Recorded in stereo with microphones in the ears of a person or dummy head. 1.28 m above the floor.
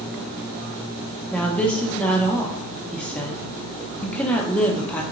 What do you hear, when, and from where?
1.3 s a woman speaking: 5° left (ahead or behind), 0.5 m